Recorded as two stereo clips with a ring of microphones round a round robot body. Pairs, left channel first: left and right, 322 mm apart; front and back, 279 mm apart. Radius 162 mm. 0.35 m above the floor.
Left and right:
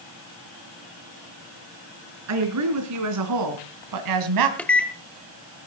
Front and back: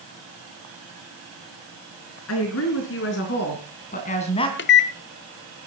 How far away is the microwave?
About 1.1 m.